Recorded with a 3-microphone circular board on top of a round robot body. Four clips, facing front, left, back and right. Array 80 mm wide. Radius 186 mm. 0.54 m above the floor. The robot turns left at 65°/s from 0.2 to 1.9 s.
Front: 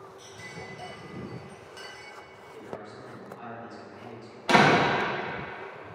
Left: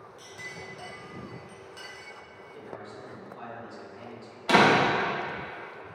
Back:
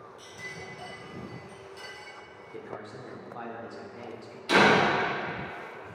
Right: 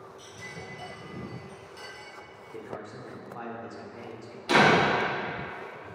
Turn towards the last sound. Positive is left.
turn(degrees=30)